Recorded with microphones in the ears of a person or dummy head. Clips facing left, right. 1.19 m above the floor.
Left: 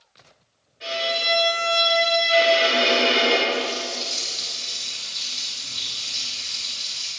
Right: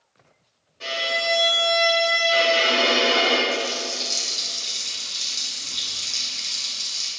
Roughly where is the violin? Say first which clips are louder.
Left 1 dB; right.